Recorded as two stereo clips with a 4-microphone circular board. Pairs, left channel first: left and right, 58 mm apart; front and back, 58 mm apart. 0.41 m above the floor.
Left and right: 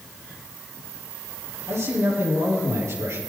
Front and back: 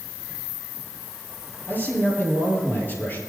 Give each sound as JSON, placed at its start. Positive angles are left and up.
{"t": 1.7, "sound": "a man speaking", "azimuth_deg": -55, "distance_m": 9.5}